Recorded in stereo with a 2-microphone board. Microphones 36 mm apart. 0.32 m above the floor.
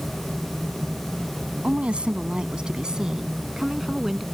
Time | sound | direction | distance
1.6 | a woman speaking | 35° right (ahead or behind) | ?